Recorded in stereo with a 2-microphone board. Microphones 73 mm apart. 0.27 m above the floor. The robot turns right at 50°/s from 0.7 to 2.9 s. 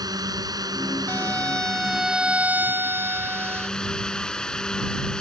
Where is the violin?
140° left; by 3.7 s 130° right.